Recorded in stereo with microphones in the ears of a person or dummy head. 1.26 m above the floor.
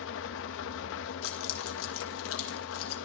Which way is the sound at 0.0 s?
75° left (ahead or behind).